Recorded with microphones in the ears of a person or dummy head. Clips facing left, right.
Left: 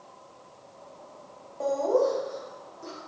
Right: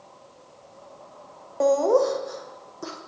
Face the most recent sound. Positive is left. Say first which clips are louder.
# right 5 dB
turn(degrees=-70)  # may be behind; listen again after turning